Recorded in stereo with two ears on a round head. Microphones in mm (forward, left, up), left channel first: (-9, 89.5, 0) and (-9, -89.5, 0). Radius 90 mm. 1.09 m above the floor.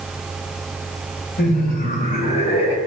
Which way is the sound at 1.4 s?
50° left (ahead or behind).